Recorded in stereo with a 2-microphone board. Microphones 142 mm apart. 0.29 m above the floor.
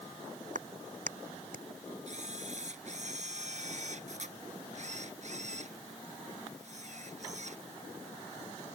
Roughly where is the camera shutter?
Right.